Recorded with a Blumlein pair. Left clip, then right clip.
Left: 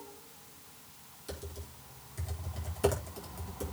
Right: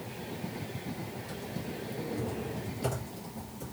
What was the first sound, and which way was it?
Typing on a keyboard, 35° left.